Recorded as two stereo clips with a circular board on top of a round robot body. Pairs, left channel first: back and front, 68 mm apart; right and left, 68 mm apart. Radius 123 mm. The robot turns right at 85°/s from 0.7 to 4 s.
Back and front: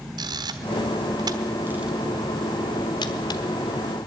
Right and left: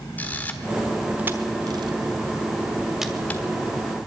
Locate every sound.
0.2 s a camera shutter: 25° right, 1.2 m; by 3.4 s 150° right, 1.2 m